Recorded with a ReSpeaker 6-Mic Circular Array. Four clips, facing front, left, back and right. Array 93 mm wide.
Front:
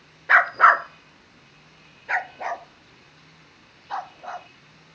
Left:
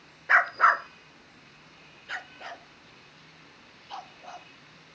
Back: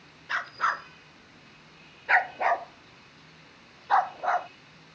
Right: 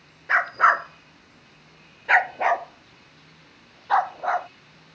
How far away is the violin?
No violin in this recording.